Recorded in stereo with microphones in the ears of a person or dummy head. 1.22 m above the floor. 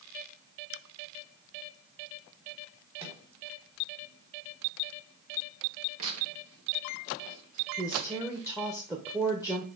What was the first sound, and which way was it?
A microwave, 30° right (ahead or behind).